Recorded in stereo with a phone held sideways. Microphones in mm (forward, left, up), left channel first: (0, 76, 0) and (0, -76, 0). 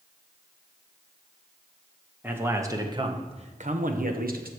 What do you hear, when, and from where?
2.2 s a man speaking: 15° right (ahead or behind), 1.4 m; by 4.5 s 75° right (ahead or behind), 1.2 m